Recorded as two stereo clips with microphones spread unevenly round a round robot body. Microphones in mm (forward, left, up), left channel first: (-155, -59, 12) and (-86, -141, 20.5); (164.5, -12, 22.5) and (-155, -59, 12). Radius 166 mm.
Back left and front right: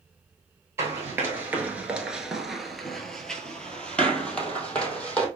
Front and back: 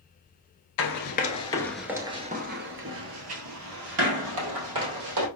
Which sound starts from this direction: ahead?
Running footsteps, at 0.8 s.